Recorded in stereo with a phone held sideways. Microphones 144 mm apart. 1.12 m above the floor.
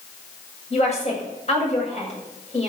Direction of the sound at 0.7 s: 50° left (ahead or behind).